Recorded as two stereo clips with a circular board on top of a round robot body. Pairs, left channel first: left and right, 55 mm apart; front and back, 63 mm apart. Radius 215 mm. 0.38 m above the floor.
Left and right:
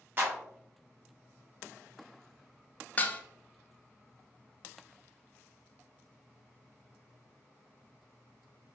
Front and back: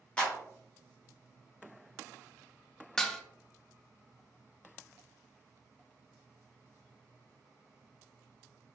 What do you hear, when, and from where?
0.2 s a clap: 65° right, 1.3 m
3.0 s dishes clattering: 75° left, 0.6 m